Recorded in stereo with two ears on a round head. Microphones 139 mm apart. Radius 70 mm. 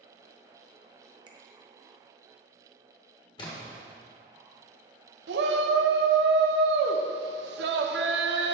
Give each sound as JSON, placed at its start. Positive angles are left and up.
{"t": 1.3, "sound": "a finger snap", "side_deg": -35, "distance_m": 0.7}
{"t": 3.4, "sound": "a splash", "side_deg": 30, "distance_m": 1.1}
{"t": 5.3, "sound": "a shout", "side_deg": -85, "distance_m": 0.7}